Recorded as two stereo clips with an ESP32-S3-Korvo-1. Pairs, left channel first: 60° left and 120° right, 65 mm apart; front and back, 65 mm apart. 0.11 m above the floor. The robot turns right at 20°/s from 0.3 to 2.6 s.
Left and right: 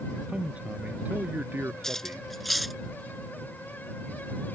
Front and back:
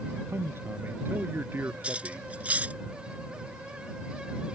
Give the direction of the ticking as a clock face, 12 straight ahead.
I don't hear ticking.